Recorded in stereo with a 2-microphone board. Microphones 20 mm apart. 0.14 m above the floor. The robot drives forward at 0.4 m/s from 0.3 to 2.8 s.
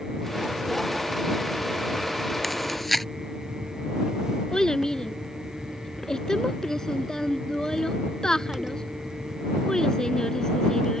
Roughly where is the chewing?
Centre.